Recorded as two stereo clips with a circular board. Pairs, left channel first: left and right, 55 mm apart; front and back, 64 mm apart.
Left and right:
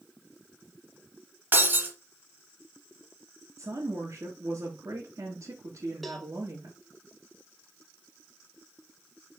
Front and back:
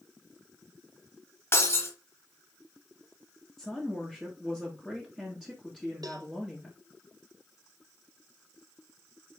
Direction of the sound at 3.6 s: 95° right.